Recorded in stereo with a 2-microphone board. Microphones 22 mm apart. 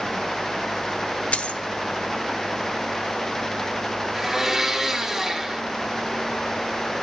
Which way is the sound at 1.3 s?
60° left (ahead or behind).